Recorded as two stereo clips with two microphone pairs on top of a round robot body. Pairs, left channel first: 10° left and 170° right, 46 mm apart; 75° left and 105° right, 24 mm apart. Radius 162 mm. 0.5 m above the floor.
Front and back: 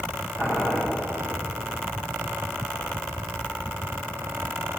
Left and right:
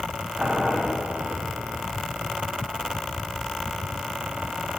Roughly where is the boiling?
Ahead right.